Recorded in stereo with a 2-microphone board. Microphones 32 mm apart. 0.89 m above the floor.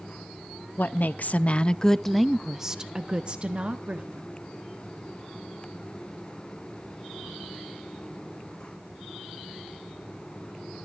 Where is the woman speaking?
65° left (ahead or behind), 0.8 m; by 4.3 s 40° right (ahead or behind), 1.6 m.